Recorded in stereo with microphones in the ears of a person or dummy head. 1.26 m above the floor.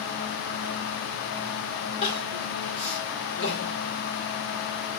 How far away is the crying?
About 2 m.